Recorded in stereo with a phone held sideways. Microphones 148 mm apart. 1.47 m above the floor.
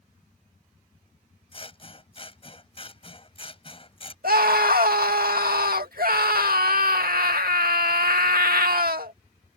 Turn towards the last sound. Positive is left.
turn(degrees=-85)